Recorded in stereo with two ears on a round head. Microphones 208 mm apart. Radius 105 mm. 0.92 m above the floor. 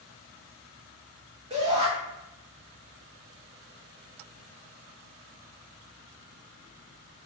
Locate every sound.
1.5 s a shout: 25° right (ahead or behind), 1.1 m